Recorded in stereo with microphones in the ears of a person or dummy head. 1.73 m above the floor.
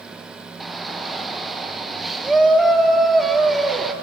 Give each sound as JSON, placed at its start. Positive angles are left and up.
{"t": 0.6, "sound": "a shout", "side_deg": 0, "distance_m": 1.6}